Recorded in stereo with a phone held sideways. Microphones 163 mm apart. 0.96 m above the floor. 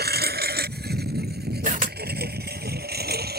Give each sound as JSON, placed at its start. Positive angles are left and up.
{"t": 0.0, "sound": "a lawn mower", "side_deg": -85}
{"t": 1.6, "sound": "a camera shutter", "side_deg": -55}